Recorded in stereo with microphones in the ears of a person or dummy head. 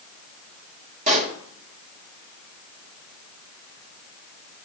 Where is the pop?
45° right (ahead or behind), 1.4 m.